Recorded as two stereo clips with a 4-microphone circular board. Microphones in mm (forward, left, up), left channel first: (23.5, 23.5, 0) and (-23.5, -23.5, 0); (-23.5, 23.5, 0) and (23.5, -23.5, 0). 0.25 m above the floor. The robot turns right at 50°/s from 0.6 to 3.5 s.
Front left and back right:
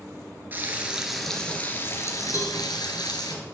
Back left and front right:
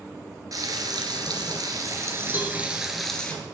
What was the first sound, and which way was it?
Frying, 75° right.